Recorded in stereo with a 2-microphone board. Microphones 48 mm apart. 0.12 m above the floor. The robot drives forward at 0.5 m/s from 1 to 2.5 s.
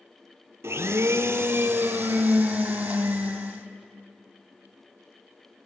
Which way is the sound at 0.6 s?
60° right (ahead or behind).